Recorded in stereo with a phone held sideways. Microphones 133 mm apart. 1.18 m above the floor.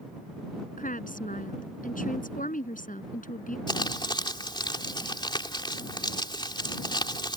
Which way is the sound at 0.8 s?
70° left (ahead or behind).